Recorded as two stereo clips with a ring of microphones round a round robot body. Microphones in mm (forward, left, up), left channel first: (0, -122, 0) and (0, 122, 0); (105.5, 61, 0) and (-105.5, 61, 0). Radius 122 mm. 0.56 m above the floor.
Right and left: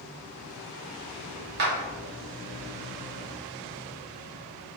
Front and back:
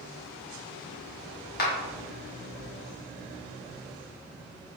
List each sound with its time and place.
1.6 s a clap: 40° left, 1.1 m